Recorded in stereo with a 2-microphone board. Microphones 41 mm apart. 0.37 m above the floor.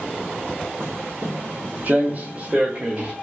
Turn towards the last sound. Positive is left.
turn(degrees=-25)  # may be behind; listen again after turning